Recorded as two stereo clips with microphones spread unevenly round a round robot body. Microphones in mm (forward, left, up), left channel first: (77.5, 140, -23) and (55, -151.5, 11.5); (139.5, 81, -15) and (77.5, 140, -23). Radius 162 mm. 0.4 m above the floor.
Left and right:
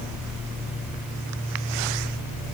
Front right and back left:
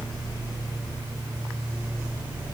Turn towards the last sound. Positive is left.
No sound to turn to.